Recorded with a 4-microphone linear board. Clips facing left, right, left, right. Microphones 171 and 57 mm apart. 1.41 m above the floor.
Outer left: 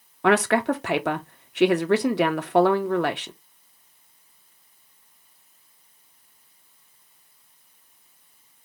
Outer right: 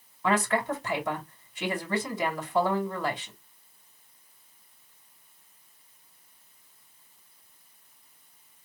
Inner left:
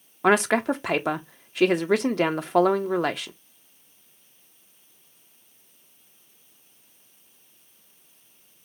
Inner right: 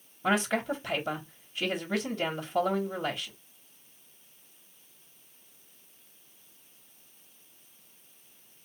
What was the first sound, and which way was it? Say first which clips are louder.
A woman speaking: outer left 7 dB, inner left 8 dB; 75° left (ahead or behind).